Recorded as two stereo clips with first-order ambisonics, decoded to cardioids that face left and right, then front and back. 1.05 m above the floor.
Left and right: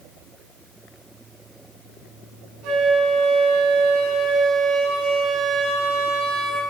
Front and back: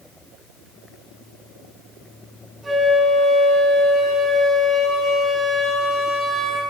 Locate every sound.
2.6 s a flute: 105° right, 6 m